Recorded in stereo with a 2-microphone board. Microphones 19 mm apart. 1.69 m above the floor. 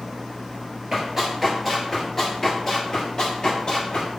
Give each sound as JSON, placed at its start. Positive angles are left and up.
{"t": 0.9, "sound": "running footsteps", "side_deg": -20, "distance_m": 1.7}